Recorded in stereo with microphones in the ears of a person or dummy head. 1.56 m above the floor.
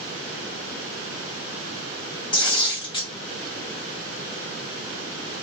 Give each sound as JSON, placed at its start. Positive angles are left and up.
{"t": 2.3, "sound": "tearing paper", "side_deg": 25, "distance_m": 0.8}